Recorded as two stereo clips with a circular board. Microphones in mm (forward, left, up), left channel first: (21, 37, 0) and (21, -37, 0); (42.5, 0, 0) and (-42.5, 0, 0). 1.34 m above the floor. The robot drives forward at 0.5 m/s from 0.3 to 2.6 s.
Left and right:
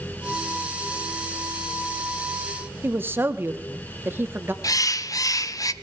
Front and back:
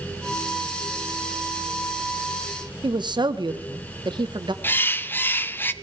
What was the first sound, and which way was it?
A woman speaking, 150° right.